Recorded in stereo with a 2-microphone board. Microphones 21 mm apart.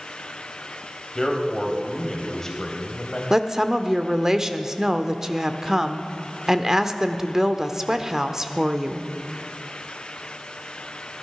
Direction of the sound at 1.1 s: 20° left (ahead or behind).